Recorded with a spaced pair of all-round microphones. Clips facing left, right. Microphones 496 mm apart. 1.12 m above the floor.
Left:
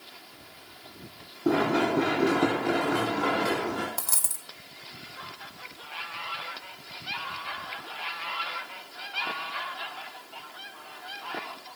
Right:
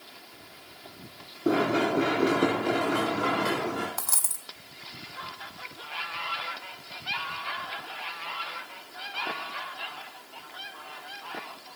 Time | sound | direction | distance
1.4 | running footsteps | 15° left (ahead or behind) | 7 m
4.0 | a dropped coin | 50° left (ahead or behind) | 2 m